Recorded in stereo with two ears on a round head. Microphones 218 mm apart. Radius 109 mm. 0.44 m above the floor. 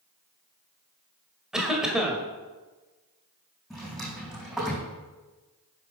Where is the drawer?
Centre (ahead or behind), 5 m.